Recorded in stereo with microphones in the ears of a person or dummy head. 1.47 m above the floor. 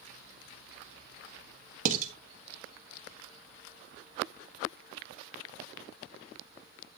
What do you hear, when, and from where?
1.9 s dishes clattering: 50° right (ahead or behind), 1.6 m